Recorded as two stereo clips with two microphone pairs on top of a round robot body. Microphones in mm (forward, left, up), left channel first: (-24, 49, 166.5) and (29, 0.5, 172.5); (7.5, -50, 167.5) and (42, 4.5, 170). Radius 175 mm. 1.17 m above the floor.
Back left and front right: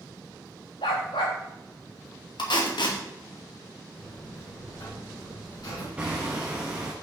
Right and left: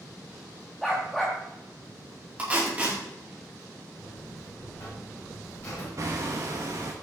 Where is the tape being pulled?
130° left, 2.5 m.